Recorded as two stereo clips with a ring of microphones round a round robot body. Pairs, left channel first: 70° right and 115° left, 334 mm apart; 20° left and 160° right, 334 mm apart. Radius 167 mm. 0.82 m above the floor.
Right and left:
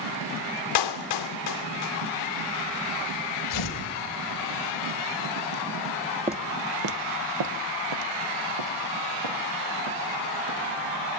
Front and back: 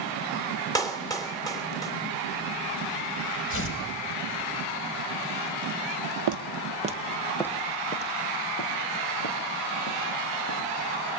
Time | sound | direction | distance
0.8 | a clap | 55° right | 2.5 m
3.5 | tearing paper | 35° right | 3.5 m
6.3 | footsteps | 175° right | 1.2 m